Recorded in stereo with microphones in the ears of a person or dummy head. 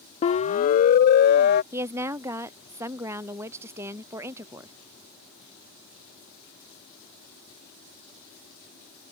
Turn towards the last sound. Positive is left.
turn(degrees=-20)  # may be behind; listen again after turning